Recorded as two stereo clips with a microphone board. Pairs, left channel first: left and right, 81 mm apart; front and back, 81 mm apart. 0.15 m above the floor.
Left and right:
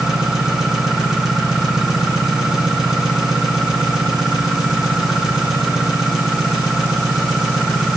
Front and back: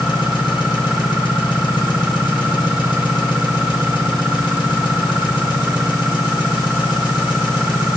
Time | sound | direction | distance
0.0 | an engine running | 5° right | 2.5 m